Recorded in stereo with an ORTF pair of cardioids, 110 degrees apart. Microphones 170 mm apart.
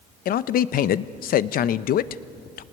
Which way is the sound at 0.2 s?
60° left.